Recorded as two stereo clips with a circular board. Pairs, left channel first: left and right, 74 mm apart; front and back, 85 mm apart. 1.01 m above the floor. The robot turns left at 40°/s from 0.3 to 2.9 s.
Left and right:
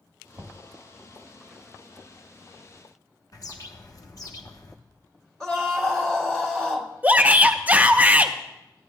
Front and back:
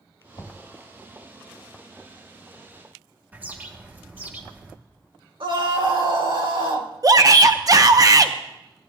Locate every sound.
0.4 s knocking: 50° right, 1.2 m; by 0.6 s 60° right, 1.2 m
3.3 s a bird: 115° left, 1.0 m
5.4 s a scream: 170° left, 1.6 m
7.0 s a shout: 150° right, 0.6 m